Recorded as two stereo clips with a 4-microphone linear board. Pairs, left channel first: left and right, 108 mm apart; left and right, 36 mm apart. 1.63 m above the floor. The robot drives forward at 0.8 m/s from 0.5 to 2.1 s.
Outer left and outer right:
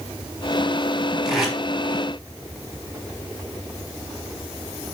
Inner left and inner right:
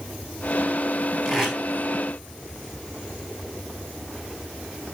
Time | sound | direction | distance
1.2 | tape being pulled | 5° right (ahead or behind) | 4.5 m